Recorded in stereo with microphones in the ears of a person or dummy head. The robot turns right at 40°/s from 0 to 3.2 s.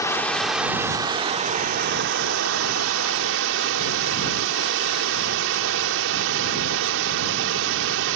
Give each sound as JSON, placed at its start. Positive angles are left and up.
{"t": 0.0, "sound": "running water", "azimuth_deg": 165}